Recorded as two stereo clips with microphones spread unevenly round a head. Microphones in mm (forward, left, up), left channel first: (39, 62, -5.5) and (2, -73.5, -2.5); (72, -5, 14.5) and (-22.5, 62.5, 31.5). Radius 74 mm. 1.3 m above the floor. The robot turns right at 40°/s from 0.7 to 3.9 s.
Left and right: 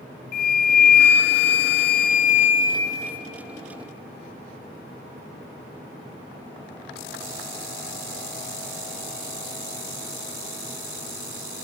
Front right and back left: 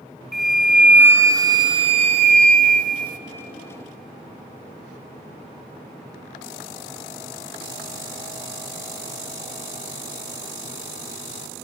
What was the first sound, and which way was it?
A flute, 55° left.